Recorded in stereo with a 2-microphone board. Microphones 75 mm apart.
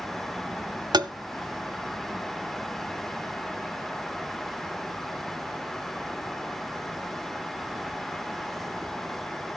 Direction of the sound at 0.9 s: 70° right (ahead or behind).